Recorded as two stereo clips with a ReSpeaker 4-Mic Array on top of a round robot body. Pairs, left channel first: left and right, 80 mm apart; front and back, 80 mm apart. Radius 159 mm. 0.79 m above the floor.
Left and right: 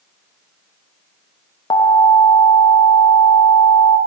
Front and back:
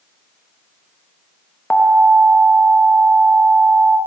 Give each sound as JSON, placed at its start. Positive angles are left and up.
{"t": 1.7, "sound": "an alarm", "azimuth_deg": 75, "distance_m": 0.9}